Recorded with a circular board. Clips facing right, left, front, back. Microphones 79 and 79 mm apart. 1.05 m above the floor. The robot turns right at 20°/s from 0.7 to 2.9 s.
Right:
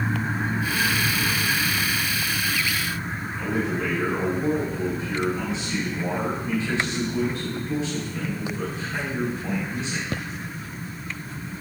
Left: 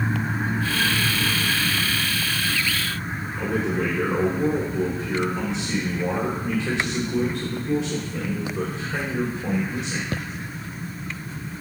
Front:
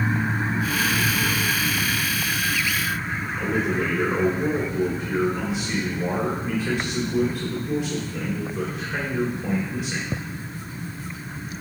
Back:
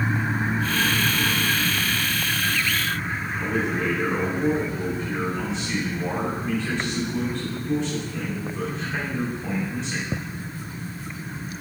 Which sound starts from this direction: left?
A man speaking, at 3.4 s.